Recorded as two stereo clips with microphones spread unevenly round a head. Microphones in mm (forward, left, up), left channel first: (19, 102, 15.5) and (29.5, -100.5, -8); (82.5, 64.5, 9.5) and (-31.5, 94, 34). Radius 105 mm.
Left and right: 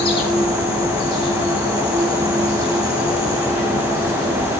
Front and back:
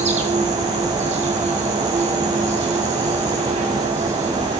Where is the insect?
160° left, 2 m.